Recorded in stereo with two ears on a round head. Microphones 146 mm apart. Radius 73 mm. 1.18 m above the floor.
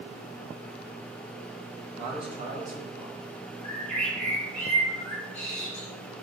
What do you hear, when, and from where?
2.0 s a man speaking: 40° right (ahead or behind), 1.1 m; by 3.2 s 15° right (ahead or behind), 1.5 m
3.6 s a bird: 10° left (ahead or behind), 1.2 m